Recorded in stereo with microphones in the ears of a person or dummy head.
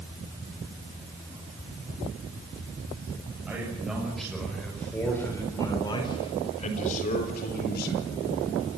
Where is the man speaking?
5° right (ahead or behind), 7 m; by 8.0 s 70° left (ahead or behind), 4.5 m.